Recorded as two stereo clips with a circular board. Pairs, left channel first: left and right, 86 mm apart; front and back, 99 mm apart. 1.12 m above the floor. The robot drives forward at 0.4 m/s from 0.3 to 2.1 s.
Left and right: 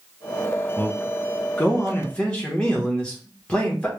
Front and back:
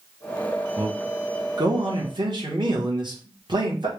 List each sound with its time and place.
0.8 s a man speaking: 150° left, 0.8 m; by 3.9 s 165° left, 1.2 m